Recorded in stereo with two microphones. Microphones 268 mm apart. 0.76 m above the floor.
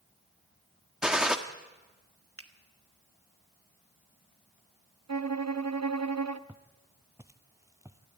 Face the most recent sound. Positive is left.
turn(degrees=-10)  # may be behind; listen again after turning